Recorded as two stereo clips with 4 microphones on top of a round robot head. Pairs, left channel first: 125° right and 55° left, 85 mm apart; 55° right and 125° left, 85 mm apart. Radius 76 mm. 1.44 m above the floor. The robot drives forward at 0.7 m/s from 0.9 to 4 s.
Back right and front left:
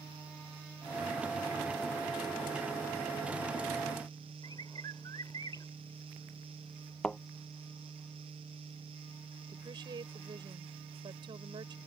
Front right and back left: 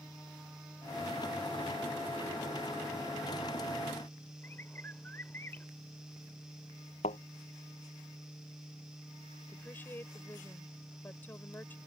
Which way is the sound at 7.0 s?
45° right.